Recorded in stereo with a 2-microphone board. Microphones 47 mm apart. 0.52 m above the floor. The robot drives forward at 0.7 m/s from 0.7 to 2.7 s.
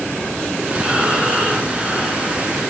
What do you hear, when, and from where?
0.8 s breathing: 15° right (ahead or behind), 1.6 m; by 2.4 s 10° right (ahead or behind), 2.5 m